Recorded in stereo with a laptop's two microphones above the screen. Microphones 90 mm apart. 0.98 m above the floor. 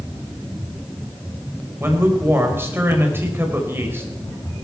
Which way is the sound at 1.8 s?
25° right (ahead or behind).